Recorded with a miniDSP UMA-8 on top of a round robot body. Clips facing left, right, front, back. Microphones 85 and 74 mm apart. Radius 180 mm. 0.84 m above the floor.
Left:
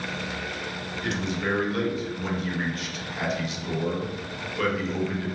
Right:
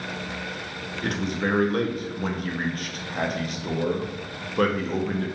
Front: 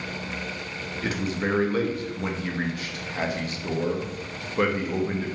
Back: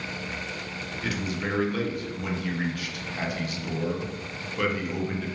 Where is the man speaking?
55° right, 0.6 m.